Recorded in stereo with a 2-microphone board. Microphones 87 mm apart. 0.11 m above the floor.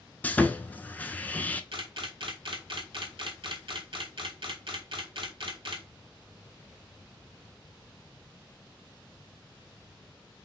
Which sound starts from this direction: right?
A camera shutter, at 1.7 s.